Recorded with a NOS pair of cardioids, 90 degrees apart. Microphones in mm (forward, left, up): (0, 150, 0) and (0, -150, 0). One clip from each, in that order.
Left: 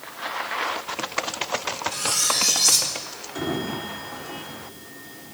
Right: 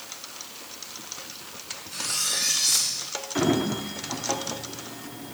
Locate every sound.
1.9 s cutlery clinking: 65° left, 1.8 m
3.4 s a sliding door: 40° right, 1.1 m